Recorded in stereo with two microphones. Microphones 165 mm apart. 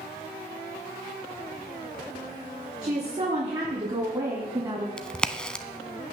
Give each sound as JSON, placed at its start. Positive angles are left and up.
{"t": 2.8, "sound": "a woman speaking", "side_deg": -40, "distance_m": 3.0}
{"t": 5.0, "sound": "a crack", "side_deg": 5, "distance_m": 0.6}